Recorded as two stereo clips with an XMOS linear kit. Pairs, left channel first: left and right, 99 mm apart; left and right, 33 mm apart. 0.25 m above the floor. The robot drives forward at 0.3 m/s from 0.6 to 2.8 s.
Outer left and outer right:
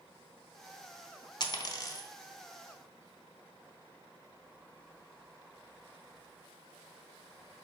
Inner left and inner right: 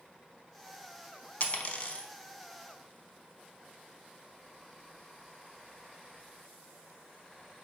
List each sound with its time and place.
1.4 s a dropped coin: 45° left (ahead or behind), 0.5 m; by 2.1 s 35° left (ahead or behind), 0.7 m